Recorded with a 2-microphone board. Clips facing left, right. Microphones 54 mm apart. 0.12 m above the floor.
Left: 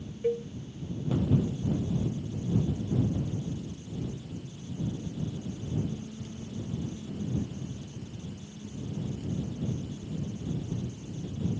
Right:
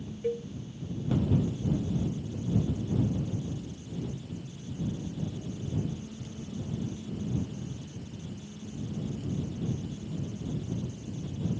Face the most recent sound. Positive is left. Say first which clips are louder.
# left 3 dB
turn(degrees=15)  # may be behind; listen again after turning